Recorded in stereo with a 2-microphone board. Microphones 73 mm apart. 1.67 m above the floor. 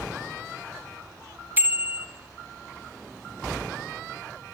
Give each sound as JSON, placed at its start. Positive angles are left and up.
{"t": 1.6, "sound": "a bicycle bell", "side_deg": -25, "distance_m": 2.0}